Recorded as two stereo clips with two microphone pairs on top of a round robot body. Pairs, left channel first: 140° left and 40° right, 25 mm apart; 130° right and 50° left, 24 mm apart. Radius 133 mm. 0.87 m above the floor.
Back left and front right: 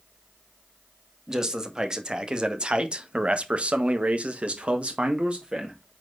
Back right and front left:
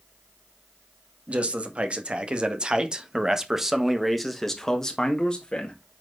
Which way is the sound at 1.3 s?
25° left.